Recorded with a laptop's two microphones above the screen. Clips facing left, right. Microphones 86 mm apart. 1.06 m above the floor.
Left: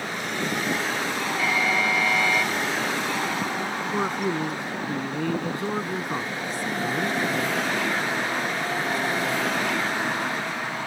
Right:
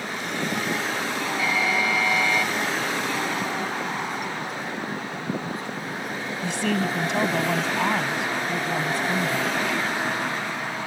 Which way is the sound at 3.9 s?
70° left (ahead or behind).